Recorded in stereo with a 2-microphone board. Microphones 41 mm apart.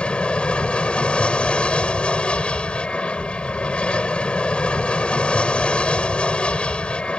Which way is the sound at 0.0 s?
30° left (ahead or behind).